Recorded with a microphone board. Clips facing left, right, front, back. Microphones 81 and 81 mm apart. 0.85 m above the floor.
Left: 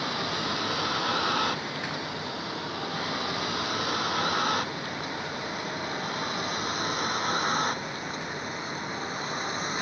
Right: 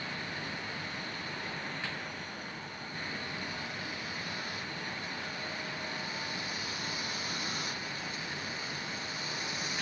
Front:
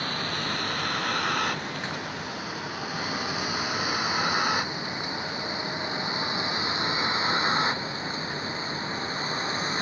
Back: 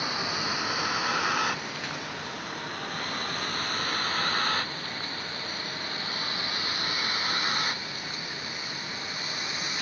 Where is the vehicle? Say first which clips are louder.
Left 9 dB, even; 100° left; by 9.8 s 55° left.